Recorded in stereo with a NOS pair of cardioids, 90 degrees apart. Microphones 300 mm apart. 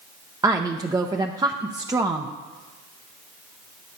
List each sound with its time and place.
0.4 s a woman speaking: 10° right, 0.7 m